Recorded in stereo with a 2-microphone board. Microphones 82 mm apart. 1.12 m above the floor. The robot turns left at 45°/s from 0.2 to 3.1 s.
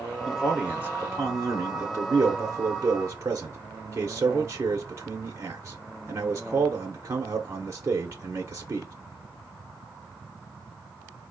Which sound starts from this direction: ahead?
A man speaking, at 0.3 s.